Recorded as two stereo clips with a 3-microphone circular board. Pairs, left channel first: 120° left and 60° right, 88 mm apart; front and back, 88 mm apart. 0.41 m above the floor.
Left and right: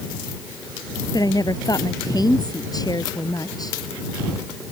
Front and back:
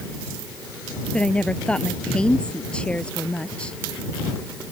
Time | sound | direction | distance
1.1 | a woman speaking | 80° left | ?